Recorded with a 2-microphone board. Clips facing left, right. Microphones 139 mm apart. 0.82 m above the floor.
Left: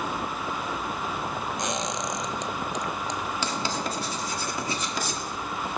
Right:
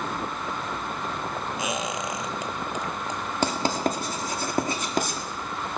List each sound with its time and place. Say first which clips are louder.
1.6 s a squeak: right 1 dB; 5° right (ahead or behind), 0.9 m
3.4 s writing: right 9 dB; 50° right (ahead or behind), 1.9 m